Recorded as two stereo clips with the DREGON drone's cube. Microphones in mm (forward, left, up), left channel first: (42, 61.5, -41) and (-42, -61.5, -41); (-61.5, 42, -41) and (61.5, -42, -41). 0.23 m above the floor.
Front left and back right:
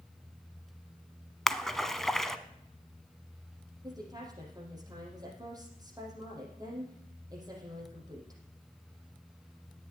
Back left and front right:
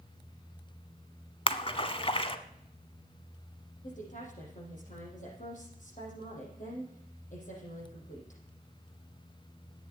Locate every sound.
1.5 s a splash: 140° left, 0.8 m
3.8 s a woman speaking: 170° left, 5.5 m